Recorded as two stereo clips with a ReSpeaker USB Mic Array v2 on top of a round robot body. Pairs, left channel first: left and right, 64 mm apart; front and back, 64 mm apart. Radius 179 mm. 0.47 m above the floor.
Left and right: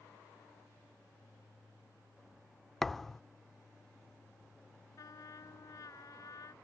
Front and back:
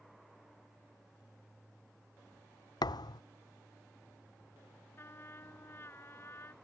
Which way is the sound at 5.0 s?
55° left.